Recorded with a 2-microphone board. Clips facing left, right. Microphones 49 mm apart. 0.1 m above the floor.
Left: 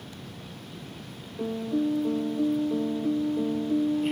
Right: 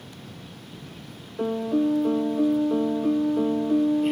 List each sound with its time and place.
1.4 s a piano: 60° right (ahead or behind)